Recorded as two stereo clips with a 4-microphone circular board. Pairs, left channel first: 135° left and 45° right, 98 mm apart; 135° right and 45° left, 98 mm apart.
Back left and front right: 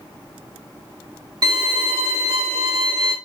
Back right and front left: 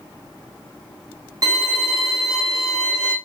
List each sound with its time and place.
1.4 s a violin: 5° right, 3 m